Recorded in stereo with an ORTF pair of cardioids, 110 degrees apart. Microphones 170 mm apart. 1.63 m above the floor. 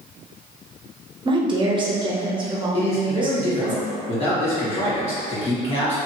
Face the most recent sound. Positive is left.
turn(degrees=40)